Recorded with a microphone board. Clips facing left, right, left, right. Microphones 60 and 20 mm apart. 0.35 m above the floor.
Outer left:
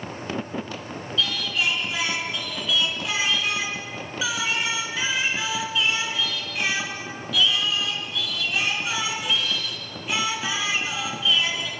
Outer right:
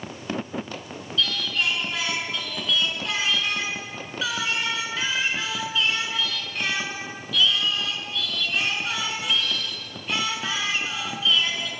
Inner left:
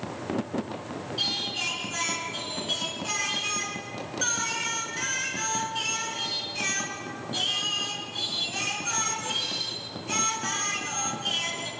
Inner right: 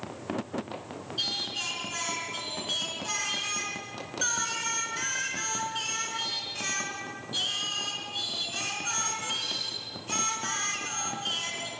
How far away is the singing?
About 4 m.